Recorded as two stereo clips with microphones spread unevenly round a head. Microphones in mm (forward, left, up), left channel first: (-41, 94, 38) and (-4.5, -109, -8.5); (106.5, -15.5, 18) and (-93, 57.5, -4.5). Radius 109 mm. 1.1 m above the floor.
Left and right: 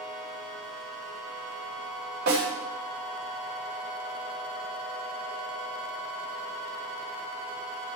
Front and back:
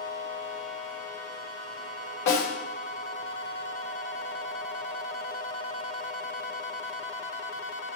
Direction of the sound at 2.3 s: 30° right.